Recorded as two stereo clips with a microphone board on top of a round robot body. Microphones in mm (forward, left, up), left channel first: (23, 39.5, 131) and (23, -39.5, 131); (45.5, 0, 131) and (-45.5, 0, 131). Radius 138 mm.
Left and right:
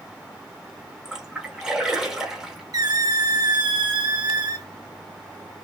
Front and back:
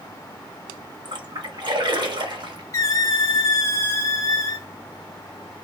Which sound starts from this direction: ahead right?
A squeak, at 2.7 s.